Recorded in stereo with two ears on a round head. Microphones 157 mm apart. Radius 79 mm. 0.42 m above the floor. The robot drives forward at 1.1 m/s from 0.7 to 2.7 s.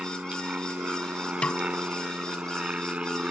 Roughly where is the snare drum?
Centre.